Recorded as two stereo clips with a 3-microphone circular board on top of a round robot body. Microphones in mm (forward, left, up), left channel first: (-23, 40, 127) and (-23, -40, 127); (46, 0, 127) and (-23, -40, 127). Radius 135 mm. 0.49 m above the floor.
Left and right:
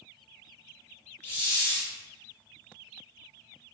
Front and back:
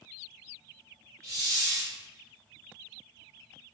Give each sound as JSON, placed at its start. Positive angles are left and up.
{"t": 1.2, "sound": "a hiss", "azimuth_deg": 155, "distance_m": 0.5}